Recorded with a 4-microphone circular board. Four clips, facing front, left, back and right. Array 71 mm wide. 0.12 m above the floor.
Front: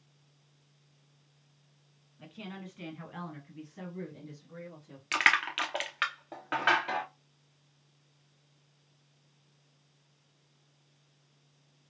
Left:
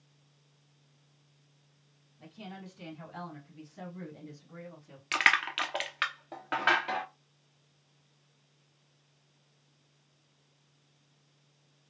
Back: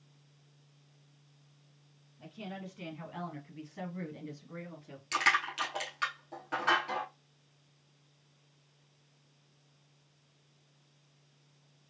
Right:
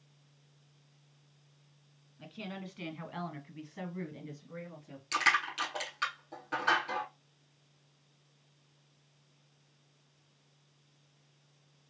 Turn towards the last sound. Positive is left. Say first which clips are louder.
# left 3 dB, front 3 dB
turn(degrees=45)